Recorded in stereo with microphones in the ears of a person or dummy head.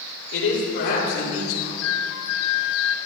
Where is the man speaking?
75° left (ahead or behind), 6 m; by 1.7 s 70° left (ahead or behind), 6.5 m.